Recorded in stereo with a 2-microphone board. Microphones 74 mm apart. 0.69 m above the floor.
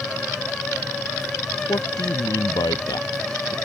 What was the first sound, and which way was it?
A man speaking, 60° left (ahead or behind).